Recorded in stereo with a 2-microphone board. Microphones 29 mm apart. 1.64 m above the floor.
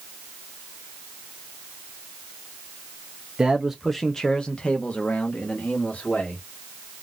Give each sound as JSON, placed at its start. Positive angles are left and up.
{"t": 3.4, "sound": "a man speaking", "side_deg": -25, "distance_m": 0.5}